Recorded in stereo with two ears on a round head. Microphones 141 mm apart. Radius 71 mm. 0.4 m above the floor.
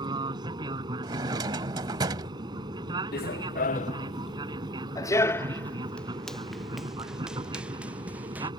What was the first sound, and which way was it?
An aircraft, 25° right (ahead or behind).